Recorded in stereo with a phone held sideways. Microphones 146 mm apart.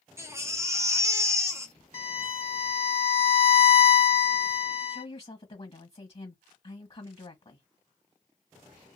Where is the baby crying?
20° right (ahead or behind), 0.8 m.